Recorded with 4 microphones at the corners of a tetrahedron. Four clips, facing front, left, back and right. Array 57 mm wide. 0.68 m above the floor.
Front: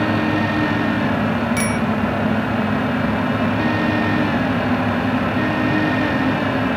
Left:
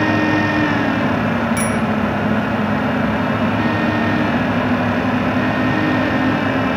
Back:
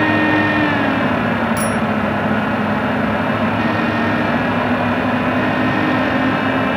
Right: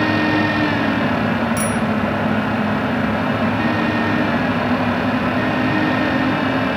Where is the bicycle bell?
20° left, 2.5 m.